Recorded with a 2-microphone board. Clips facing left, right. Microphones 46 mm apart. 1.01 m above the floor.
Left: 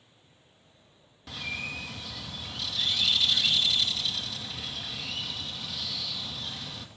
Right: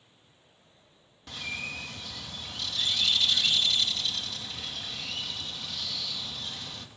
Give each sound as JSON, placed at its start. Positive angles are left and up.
{"t": 1.3, "sound": "a bird", "side_deg": 5, "distance_m": 1.2}